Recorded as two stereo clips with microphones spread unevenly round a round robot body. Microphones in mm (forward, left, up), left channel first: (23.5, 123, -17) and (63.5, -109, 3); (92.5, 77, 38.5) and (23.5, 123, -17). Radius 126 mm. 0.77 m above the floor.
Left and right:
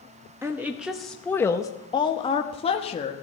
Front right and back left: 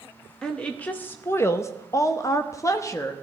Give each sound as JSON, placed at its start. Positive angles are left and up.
{"t": 0.4, "sound": "a woman speaking", "azimuth_deg": -160, "distance_m": 0.9}